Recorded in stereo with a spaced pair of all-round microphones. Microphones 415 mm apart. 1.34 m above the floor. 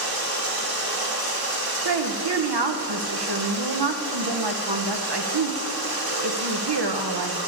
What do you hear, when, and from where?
0.0 s running water: 60° right (ahead or behind), 1.4 m
1.9 s a woman speaking: 65° right (ahead or behind), 0.7 m